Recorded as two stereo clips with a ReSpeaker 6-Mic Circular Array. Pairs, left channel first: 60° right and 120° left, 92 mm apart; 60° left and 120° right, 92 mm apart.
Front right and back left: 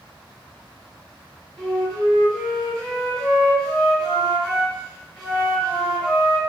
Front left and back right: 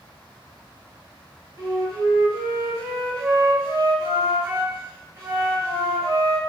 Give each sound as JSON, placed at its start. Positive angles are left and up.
{"t": 1.6, "sound": "a flute", "azimuth_deg": -130, "distance_m": 1.6}